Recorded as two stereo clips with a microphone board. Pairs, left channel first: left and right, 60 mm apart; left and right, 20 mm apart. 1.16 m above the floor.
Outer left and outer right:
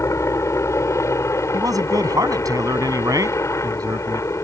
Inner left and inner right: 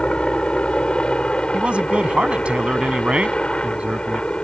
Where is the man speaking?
85° right.